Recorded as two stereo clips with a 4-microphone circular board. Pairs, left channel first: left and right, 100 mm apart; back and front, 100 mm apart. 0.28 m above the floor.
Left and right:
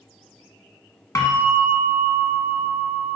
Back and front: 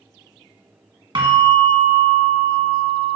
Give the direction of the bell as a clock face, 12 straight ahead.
11 o'clock.